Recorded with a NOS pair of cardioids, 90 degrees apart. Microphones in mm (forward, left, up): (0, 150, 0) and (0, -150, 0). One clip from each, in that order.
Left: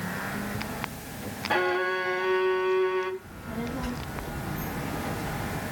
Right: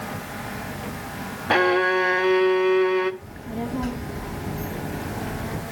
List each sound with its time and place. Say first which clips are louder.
1.5 s a violin: right 7 dB; 35° right, 0.8 m
3.2 s a child speaking: right 4 dB; 25° right, 1.3 m